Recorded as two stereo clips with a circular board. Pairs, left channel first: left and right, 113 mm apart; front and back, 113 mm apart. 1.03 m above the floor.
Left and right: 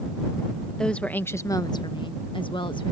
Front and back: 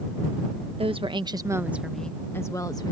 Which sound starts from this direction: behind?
A woman speaking, at 0.8 s.